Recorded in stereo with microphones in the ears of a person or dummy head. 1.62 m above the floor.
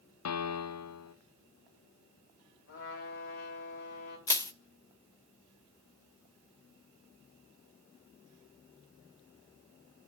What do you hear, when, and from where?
0.2 s a piano: 80° left, 0.7 m
2.7 s a trumpet: 55° left (ahead or behind), 3.5 m
4.3 s crushing: 25° left (ahead or behind), 0.8 m